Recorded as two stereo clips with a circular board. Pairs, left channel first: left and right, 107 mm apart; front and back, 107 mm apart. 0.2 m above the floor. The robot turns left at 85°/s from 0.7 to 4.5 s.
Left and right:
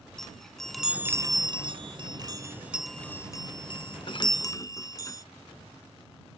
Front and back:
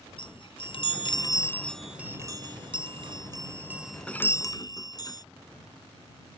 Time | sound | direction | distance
0.2 | a chime | 5° left | ?